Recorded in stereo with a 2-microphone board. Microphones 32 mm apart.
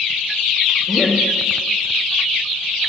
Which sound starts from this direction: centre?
Laughter, at 0.9 s.